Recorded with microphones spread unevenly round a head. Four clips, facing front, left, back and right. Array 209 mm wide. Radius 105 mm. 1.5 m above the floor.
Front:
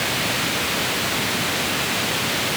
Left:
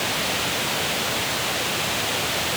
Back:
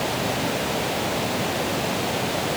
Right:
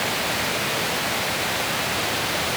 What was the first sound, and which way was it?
Only background noise.